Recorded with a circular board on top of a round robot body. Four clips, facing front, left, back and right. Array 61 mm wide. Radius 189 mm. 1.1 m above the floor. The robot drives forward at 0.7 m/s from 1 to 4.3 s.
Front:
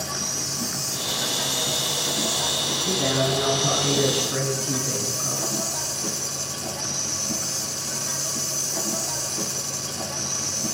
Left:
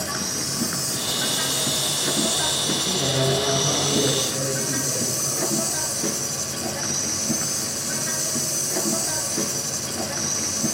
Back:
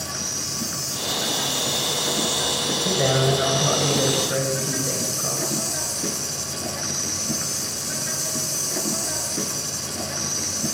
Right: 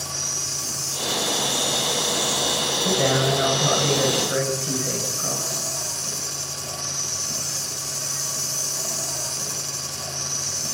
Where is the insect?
90° left, 3.5 m; by 10.8 s 125° left, 4.5 m.